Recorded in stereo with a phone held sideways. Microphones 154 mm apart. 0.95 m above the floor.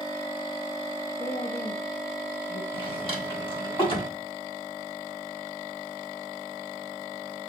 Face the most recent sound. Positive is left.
turn(degrees=35)  # may be behind; listen again after turning